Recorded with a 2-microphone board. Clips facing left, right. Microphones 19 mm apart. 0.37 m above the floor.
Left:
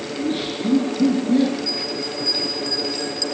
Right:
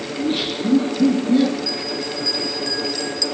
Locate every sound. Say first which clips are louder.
0.1 s laughter: right 3 dB; 20° right (ahead or behind), 6.5 m; by 1.6 s 5° right (ahead or behind), 7.5 m
1.7 s a bell: even; 15° right (ahead or behind), 5 m